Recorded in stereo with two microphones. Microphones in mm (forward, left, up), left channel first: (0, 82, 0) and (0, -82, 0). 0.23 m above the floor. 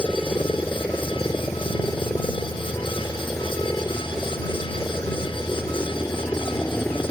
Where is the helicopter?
10° left (ahead or behind).